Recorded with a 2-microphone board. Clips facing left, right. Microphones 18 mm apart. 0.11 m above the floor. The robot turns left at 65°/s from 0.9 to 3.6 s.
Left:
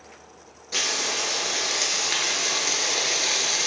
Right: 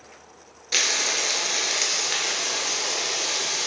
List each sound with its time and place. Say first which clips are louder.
0.7 s frying: right 3 dB; 105° right, 0.8 m; by 3.7 s 75° left, 0.8 m